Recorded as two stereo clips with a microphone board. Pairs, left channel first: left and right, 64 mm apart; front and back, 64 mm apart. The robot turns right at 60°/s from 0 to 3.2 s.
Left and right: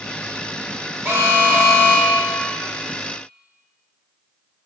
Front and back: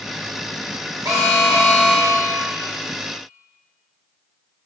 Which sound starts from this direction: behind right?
An alarm, at 1.1 s.